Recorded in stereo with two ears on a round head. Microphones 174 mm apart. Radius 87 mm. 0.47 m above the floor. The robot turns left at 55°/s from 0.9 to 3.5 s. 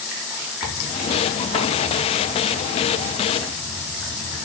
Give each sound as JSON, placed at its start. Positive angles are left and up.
{"t": 0.6, "sound": "tearing paper", "side_deg": -5, "distance_m": 5.5}